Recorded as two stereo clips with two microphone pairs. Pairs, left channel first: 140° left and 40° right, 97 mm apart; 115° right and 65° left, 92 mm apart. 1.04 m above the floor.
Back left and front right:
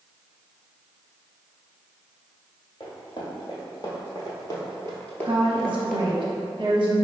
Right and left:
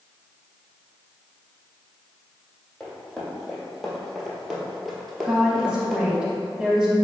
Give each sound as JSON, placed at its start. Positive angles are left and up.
{"t": 2.8, "sound": "running footsteps", "azimuth_deg": 155, "distance_m": 1.8}
{"t": 5.2, "sound": "a woman speaking", "azimuth_deg": -5, "distance_m": 0.7}